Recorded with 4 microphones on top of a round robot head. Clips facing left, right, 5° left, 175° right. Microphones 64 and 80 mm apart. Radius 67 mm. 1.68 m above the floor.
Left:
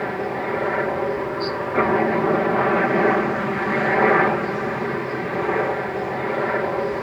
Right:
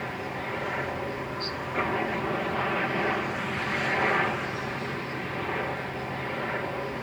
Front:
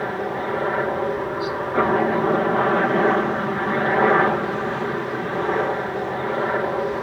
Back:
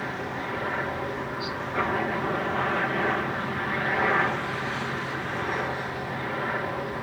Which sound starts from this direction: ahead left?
A helicopter, at 0.0 s.